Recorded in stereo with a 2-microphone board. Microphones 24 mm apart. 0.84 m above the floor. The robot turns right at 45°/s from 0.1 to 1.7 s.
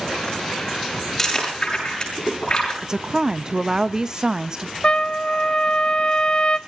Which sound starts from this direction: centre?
Chewing, at 1.2 s.